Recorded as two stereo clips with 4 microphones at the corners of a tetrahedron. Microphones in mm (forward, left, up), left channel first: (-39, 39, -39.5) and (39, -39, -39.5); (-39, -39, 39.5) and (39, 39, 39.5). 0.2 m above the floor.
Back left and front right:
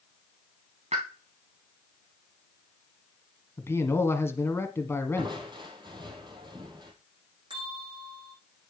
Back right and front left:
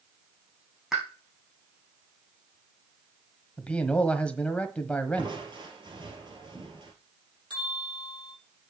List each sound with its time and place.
0.9 s a pop: 40° right, 4 m
3.6 s a man speaking: 160° left, 1.3 m
5.2 s crushing: straight ahead, 2.5 m
7.5 s a bell: 5° right, 6.5 m